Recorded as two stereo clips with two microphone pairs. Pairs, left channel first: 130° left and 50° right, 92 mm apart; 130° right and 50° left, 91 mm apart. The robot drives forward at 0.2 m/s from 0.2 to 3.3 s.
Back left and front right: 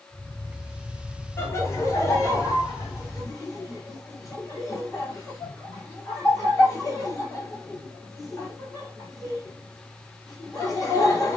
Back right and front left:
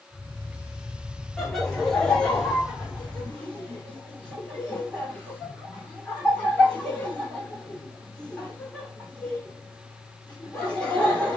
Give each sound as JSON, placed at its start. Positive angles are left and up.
{"t": 1.4, "sound": "laughter", "azimuth_deg": 145, "distance_m": 1.2}